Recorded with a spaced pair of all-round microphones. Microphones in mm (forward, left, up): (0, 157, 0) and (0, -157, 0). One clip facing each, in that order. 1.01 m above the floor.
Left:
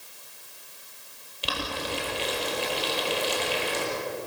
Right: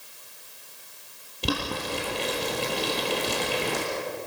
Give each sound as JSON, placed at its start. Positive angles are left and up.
{"t": 1.4, "sound": "boiling", "side_deg": -55, "distance_m": 4.5}